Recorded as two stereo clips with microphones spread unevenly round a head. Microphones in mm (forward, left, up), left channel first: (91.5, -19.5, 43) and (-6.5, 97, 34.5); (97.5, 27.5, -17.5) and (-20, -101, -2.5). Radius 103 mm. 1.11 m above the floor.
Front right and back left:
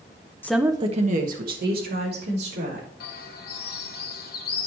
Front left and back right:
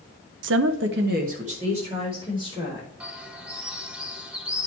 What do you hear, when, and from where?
0.4 s a woman speaking: 130° right, 0.7 m; by 2.9 s 155° left, 3.5 m
3.0 s a bird: 45° right, 1.4 m